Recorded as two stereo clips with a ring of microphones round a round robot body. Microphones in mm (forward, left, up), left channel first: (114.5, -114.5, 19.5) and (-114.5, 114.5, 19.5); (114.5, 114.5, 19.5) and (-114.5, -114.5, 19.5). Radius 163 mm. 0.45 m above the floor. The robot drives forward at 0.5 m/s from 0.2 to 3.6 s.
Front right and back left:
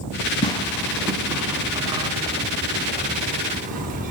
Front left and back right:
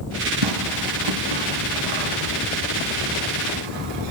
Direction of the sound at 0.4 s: 120° right.